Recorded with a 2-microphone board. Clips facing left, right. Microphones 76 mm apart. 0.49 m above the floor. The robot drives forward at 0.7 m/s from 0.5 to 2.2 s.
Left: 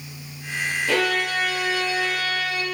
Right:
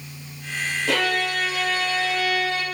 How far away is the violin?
About 7 m.